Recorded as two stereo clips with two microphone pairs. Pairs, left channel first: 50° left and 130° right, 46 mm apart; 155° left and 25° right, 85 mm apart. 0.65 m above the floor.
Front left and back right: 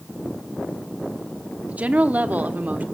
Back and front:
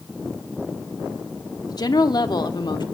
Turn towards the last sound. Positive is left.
turn(degrees=-175)